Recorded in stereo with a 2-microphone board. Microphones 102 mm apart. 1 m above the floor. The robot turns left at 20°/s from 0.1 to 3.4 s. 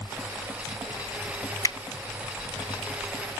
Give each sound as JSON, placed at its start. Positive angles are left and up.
{"t": 1.6, "sound": "a finger snap", "side_deg": 35, "distance_m": 0.5}